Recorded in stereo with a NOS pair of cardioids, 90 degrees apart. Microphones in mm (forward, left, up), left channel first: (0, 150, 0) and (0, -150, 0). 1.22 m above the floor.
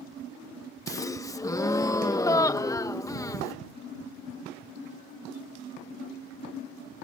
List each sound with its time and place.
0.9 s a gasp: 10° left